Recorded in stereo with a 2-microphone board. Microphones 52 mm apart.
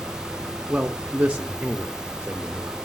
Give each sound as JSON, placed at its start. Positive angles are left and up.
{"t": 0.7, "sound": "a man speaking", "side_deg": -25, "distance_m": 0.6}